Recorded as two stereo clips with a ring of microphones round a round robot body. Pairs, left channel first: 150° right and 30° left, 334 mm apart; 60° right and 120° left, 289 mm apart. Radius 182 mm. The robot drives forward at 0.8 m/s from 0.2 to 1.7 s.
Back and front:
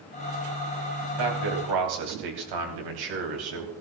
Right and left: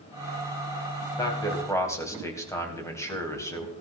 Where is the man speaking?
20° left, 3.5 m.